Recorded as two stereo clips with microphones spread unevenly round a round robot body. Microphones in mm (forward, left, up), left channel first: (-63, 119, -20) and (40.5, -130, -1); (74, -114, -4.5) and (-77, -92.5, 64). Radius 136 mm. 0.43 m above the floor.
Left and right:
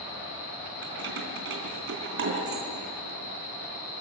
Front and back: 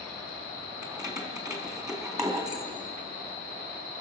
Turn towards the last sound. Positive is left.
turn(degrees=-115)